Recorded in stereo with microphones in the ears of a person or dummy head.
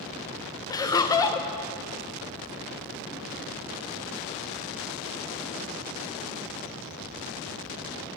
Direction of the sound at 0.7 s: 20° left (ahead or behind).